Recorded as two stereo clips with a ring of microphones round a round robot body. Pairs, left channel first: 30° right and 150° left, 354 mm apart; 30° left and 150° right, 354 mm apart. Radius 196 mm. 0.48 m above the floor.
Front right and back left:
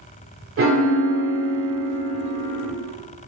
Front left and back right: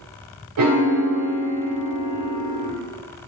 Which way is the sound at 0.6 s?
165° right.